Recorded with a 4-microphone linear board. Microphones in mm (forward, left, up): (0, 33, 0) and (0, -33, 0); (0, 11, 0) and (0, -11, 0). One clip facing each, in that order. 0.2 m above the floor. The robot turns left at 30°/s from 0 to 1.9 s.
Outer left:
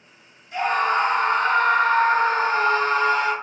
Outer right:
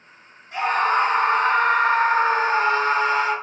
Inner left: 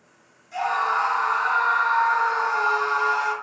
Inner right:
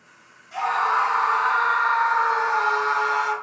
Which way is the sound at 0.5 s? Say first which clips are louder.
Outer right 1 dB, inner right 1 dB; 85° right.